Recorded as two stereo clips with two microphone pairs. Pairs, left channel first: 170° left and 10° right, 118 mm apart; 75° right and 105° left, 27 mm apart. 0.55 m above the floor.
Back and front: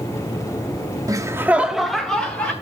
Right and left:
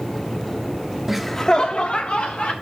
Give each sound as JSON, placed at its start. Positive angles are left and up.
{"t": 1.1, "sound": "laughter", "azimuth_deg": 20, "distance_m": 0.8}